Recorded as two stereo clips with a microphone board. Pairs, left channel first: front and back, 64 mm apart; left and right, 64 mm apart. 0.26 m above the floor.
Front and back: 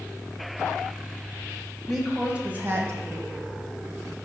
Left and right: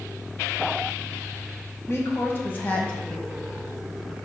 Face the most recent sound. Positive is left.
turn(degrees=170)